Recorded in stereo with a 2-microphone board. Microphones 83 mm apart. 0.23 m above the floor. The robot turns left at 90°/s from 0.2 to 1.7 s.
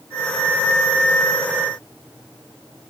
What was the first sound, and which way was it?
Only background noise.